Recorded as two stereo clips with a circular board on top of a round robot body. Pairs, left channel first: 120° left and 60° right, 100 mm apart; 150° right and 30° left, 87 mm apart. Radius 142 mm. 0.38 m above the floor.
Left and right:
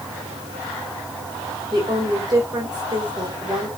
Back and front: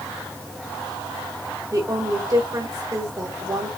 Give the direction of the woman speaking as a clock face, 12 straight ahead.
12 o'clock.